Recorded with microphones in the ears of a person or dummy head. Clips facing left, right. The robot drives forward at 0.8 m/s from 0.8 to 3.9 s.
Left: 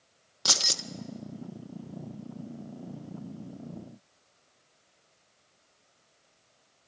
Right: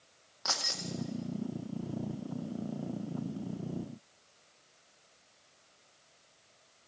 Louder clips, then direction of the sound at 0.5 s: Left 4 dB; 50° left (ahead or behind).